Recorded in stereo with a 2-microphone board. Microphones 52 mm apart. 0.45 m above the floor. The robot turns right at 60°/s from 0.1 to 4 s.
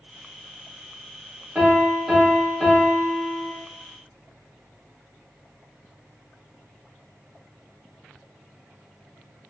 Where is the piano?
20° right (ahead or behind), 1.5 m; by 3.5 s 25° left (ahead or behind), 1.5 m.